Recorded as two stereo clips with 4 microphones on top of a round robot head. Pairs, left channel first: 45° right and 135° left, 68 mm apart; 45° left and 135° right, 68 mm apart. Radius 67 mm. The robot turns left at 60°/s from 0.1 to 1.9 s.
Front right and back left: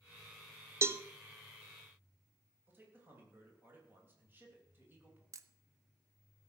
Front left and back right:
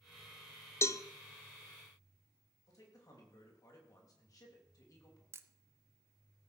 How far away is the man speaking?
About 3 m.